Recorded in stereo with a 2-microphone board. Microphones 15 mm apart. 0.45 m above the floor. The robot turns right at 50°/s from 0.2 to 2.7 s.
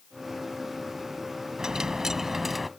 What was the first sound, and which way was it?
A dropped coin, 55° right.